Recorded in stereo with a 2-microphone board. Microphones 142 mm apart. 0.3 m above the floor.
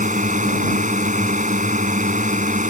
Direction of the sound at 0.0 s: 60° right (ahead or behind).